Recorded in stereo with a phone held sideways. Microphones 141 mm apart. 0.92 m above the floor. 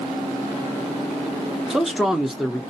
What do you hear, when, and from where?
1.7 s a man speaking: centre (ahead or behind), 0.5 m